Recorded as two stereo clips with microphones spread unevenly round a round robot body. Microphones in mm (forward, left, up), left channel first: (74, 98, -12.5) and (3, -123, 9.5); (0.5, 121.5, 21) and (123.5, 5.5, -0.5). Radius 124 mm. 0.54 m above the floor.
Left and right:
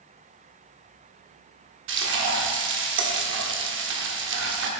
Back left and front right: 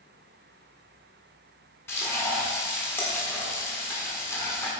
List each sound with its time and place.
1.9 s frying: 140° right, 1.4 m